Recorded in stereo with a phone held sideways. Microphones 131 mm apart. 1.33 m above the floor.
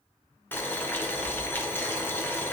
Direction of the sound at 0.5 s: 15° left (ahead or behind).